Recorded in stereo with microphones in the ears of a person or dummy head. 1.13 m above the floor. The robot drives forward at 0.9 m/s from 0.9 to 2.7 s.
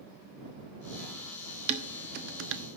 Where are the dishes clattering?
40° right (ahead or behind), 1.1 m; by 2.6 s 70° right (ahead or behind), 0.7 m.